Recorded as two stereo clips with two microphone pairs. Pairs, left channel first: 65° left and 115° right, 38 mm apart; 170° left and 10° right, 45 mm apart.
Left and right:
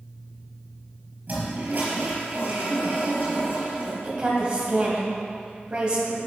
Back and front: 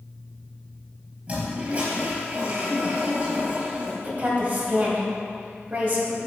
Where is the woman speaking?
50° right, 2.5 m.